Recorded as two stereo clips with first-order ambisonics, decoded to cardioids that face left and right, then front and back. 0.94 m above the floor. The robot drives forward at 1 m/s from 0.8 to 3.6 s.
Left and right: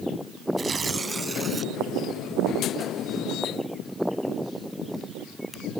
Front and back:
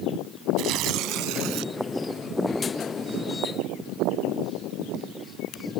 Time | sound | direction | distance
0.6 | tearing paper | 160° right | ?